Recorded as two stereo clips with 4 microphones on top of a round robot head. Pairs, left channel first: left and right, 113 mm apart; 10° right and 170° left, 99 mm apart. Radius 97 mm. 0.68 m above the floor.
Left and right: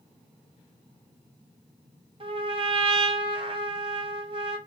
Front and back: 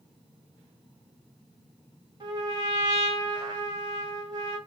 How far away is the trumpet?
About 2.0 m.